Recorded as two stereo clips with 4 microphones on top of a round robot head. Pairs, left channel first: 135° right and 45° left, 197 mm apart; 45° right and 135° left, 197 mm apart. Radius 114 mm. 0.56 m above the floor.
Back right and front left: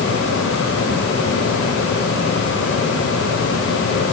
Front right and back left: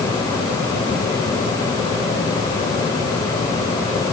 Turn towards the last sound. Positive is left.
No sound to turn to.